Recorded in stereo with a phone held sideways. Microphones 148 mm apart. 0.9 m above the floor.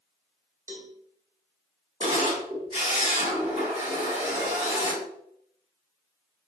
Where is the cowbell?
20° right (ahead or behind), 0.6 m.